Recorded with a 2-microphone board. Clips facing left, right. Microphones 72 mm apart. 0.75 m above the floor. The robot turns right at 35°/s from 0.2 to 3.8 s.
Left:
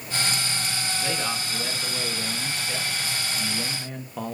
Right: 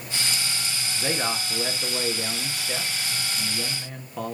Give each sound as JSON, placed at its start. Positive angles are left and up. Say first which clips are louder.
{"t": 0.9, "sound": "a man speaking", "louder": "right 4 dB", "side_deg": -25, "distance_m": 1.0}